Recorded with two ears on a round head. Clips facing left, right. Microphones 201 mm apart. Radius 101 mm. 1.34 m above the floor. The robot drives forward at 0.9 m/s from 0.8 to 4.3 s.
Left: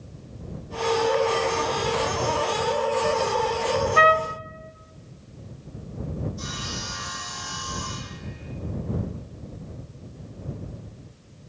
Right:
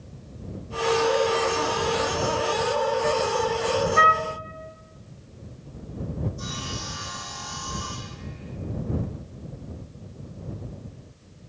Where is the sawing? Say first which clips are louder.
Even; 60° left (ahead or behind), 9 m.